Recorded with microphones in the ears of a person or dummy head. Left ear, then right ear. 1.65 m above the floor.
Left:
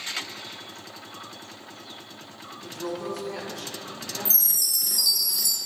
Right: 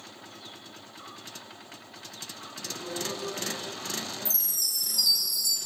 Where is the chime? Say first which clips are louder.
Left 5 dB; 5° left (ahead or behind), 0.9 m.